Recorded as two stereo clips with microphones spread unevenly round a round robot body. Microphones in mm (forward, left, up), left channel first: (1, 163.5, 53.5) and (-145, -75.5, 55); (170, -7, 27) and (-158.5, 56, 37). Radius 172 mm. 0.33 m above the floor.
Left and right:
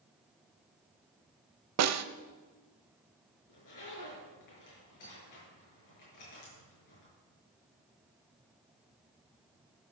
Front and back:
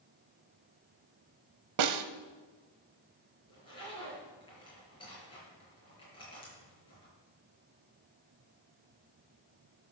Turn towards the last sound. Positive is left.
turn(degrees=65)